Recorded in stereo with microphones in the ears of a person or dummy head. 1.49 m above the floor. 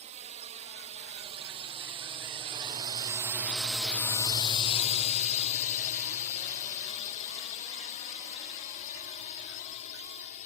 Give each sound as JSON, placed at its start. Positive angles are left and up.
{"t": 0.0, "sound": "a drone", "side_deg": -35}